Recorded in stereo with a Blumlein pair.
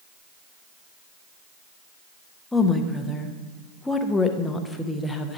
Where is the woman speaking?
10° left, 0.7 m.